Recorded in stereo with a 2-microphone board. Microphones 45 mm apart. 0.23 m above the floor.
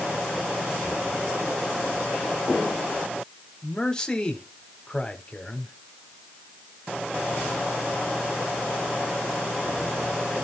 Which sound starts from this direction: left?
A man speaking, at 3.6 s.